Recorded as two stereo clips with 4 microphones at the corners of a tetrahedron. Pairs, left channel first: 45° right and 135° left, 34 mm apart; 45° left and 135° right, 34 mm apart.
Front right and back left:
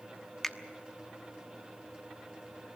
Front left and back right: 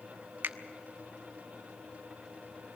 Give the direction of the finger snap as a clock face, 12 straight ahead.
4 o'clock.